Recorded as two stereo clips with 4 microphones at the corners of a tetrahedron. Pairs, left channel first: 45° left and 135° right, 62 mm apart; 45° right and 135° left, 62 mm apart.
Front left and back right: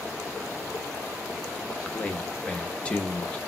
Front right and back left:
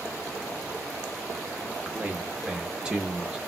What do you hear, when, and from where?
1.6 s a man speaking: 85° left, 0.7 m